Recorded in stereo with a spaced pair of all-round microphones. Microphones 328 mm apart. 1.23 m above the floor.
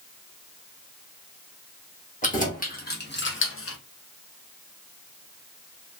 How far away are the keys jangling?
About 1.3 m.